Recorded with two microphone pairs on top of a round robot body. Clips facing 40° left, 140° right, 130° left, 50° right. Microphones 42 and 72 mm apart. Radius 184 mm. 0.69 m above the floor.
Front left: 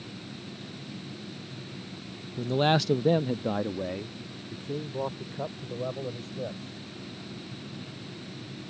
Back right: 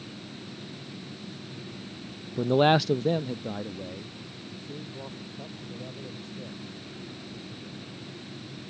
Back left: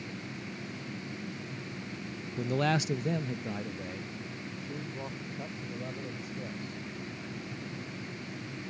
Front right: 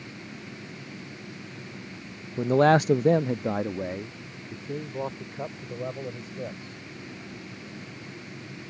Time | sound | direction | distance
2.4 | a man speaking | 100° right | ?